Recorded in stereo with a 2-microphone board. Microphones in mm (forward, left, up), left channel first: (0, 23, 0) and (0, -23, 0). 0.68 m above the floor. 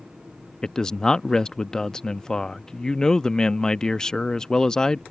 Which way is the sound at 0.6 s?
15° left (ahead or behind).